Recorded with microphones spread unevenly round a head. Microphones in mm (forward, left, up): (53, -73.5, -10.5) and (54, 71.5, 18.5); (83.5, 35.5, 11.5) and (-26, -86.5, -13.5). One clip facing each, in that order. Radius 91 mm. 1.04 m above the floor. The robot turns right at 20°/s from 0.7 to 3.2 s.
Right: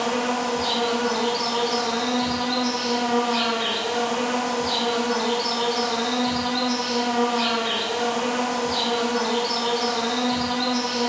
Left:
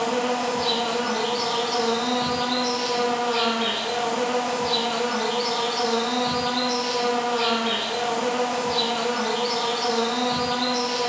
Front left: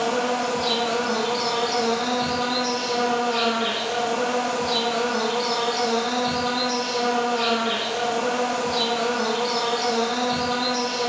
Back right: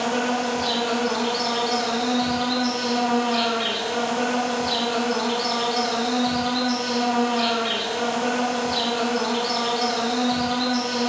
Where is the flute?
No flute in this recording.